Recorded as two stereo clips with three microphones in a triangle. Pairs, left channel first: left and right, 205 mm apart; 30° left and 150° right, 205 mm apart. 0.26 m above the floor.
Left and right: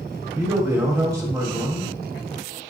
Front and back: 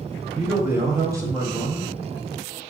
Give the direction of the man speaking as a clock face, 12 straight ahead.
4 o'clock.